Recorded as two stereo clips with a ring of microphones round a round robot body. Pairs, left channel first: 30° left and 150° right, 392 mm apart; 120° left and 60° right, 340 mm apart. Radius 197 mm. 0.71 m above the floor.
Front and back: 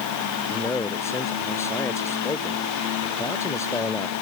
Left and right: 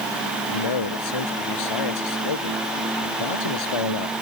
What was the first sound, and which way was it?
A man speaking, 115° left.